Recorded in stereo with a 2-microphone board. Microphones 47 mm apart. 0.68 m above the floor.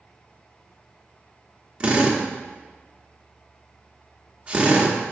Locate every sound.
1.8 s a drill: 25° right (ahead or behind), 1.2 m